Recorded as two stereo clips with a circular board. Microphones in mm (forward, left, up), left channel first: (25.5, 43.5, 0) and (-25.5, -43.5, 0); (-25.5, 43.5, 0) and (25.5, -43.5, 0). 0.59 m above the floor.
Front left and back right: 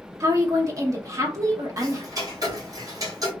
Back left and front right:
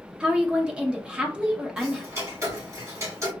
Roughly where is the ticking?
Right.